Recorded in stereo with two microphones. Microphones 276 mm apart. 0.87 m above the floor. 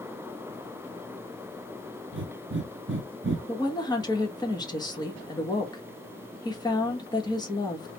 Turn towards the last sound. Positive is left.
turn(degrees=15)  # may be behind; listen again after turning